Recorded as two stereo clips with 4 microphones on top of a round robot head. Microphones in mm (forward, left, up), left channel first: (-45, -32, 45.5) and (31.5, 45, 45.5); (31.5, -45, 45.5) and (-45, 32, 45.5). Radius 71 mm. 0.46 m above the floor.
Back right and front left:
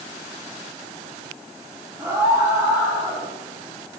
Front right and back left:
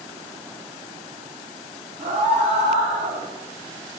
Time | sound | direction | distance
2.0 | a scream | 115° left | 5 m